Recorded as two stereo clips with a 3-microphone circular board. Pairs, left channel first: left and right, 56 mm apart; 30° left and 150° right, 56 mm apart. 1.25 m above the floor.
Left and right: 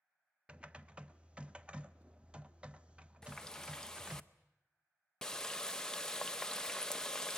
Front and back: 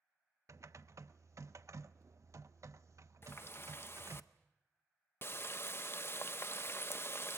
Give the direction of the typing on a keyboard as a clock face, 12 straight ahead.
5 o'clock.